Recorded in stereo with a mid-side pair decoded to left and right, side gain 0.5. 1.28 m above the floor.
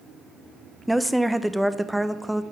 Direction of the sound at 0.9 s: 5° right.